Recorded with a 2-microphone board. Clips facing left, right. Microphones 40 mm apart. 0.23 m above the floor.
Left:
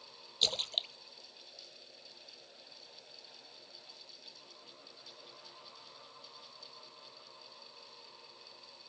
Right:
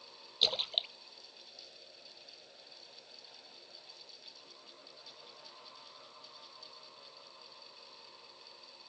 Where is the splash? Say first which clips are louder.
Right 1 dB; 15° right (ahead or behind).